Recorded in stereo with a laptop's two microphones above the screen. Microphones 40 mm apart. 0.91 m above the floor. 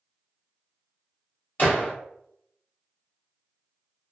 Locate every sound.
1.6 s a gunshot: 45° left (ahead or behind), 1.1 m